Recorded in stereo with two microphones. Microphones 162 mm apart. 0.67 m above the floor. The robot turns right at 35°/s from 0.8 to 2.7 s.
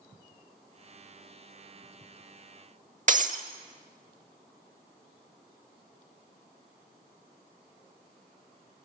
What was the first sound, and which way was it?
Breaking glass, 50° right (ahead or behind).